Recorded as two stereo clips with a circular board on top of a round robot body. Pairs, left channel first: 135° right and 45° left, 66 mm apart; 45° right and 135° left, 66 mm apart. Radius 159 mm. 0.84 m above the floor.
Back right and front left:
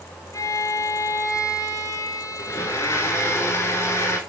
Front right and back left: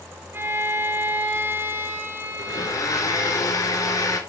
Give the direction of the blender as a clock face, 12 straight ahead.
3 o'clock.